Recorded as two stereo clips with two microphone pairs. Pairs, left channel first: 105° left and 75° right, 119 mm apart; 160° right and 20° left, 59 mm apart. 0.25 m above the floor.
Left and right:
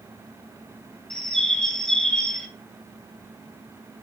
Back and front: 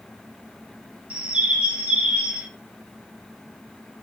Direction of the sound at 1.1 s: 20° left.